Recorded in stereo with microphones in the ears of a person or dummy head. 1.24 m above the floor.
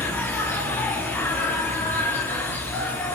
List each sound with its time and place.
0.0 s an insect: 10° left (ahead or behind), 1.0 m